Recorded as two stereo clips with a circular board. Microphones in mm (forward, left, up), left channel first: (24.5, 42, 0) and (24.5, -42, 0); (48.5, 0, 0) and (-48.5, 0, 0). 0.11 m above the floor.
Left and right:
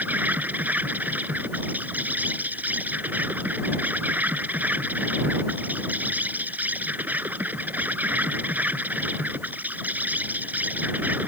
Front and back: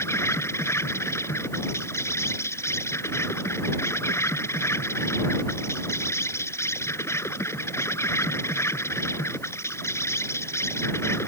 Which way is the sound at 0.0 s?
35° right.